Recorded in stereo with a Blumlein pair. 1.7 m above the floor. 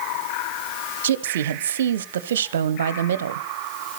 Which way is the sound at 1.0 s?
60° right.